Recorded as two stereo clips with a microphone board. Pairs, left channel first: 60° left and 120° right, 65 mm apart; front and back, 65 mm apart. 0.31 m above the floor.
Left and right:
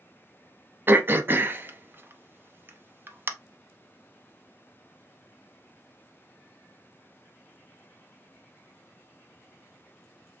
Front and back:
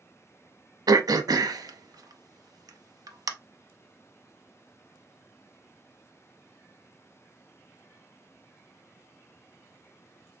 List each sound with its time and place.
0.9 s throat clearing: 175° right, 0.6 m